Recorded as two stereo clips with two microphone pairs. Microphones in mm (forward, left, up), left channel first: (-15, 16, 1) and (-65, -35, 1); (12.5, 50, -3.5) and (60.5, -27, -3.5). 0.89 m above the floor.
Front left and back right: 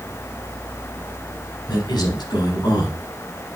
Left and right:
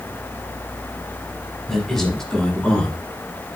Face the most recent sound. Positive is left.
turn(degrees=45)